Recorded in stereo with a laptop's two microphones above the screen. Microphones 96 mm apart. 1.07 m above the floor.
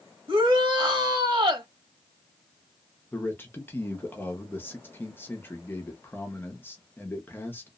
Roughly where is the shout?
Right.